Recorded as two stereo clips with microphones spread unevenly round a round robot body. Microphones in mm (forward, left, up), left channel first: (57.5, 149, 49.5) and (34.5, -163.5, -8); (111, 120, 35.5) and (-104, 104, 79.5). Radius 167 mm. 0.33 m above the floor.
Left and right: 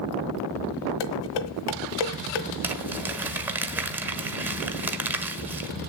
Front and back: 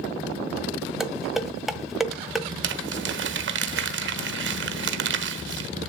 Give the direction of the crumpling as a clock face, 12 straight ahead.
6 o'clock.